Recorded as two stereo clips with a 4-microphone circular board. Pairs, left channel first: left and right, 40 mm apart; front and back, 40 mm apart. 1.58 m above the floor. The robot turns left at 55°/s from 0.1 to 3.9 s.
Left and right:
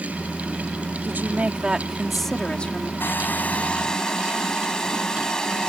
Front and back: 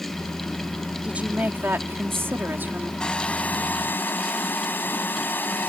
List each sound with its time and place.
1.0 s a woman speaking: 120° right; by 2.9 s 140° left
3.0 s a hair dryer: 70° left; by 5.7 s 20° left